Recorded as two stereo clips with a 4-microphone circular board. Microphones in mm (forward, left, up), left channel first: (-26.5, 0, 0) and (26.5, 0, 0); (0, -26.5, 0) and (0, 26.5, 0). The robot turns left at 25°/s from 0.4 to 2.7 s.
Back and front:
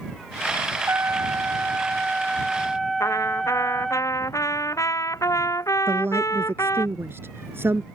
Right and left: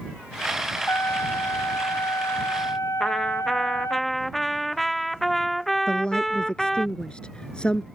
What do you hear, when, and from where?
0.9 s a trumpet: 45° right; by 4.0 s 90° right
3.0 s a trumpet: 175° right
5.9 s a woman speaking: 20° right